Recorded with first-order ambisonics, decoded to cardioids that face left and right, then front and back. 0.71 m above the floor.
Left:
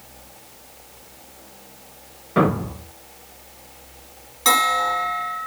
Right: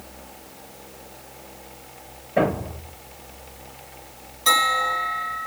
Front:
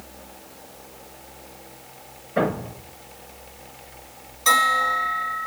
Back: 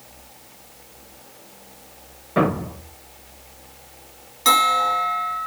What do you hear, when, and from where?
2.4 s a thud: 125° left, 4 m
4.5 s a bell: 135° left, 3 m